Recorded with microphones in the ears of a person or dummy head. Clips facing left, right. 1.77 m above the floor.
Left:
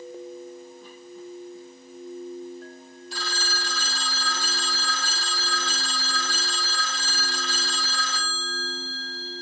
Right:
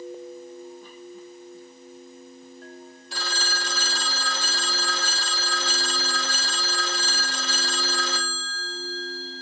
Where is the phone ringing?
55° right (ahead or behind), 2 m.